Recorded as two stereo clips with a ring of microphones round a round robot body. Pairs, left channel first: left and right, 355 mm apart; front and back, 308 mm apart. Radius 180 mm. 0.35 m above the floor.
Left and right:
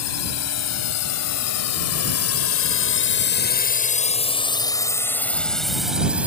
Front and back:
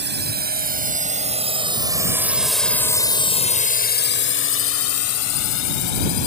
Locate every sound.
0.0 s a drone: 130° left; by 6.3 s 5° right